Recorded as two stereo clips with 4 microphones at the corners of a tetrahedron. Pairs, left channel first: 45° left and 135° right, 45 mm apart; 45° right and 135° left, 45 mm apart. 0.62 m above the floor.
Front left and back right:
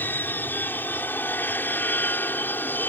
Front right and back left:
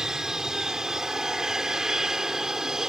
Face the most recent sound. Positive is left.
turn(degrees=60)